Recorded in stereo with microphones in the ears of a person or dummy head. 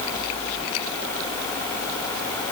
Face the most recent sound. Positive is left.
No sound to turn to.